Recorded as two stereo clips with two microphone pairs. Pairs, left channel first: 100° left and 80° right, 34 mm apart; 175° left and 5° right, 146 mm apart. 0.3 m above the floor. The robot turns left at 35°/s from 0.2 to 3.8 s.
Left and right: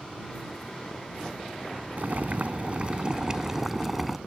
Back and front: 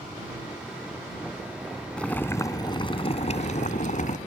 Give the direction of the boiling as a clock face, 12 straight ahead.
3 o'clock.